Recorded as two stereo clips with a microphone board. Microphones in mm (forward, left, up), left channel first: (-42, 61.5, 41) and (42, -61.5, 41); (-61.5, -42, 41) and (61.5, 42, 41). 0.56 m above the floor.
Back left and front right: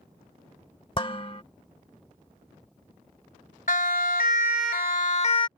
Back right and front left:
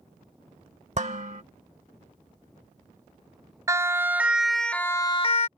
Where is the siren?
105° left; by 5.5 s straight behind.